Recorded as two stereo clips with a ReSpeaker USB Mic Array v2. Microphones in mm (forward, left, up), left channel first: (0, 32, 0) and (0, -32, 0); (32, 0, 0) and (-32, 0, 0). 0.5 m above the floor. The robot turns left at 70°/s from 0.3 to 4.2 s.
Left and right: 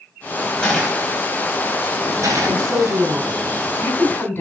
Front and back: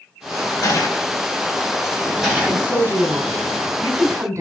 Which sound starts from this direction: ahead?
A gunshot, at 0.6 s.